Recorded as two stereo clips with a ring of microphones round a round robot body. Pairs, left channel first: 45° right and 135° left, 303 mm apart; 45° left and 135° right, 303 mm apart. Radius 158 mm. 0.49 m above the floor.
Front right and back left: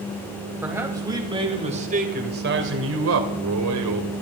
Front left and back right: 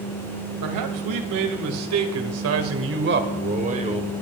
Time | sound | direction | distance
0.6 | a man speaking | 140° right | 2.5 m